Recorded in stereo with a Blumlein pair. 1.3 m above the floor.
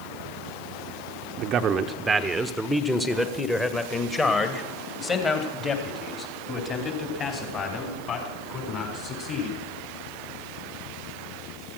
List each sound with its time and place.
1.4 s a man speaking: 35° right, 0.8 m; by 9.6 s 30° left, 5.5 m